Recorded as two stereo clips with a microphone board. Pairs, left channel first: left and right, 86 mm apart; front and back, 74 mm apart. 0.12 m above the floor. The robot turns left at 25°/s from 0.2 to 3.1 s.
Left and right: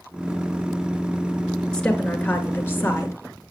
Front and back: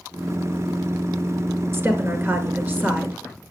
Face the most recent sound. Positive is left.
turn(degrees=125)